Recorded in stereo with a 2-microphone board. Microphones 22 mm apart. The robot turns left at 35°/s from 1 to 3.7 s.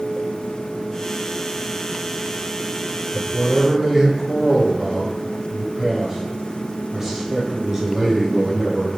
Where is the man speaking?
20° right (ahead or behind), 1.0 m.